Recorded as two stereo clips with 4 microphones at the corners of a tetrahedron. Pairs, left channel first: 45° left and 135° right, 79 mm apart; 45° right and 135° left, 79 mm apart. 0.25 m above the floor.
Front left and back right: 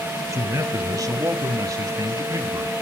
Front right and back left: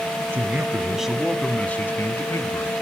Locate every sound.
0.3 s a man speaking: 170° right, 1.5 m; by 2.7 s 85° right, 1.9 m